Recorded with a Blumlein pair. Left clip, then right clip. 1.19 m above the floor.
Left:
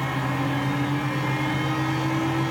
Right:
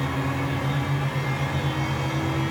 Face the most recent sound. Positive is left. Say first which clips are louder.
# left 1 dB
turn(degrees=0)